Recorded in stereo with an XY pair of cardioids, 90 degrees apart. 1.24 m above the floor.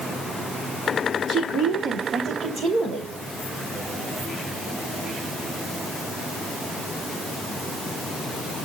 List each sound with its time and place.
1.3 s a woman speaking: 65° right, 4 m; by 3.1 s 70° right, 3.5 m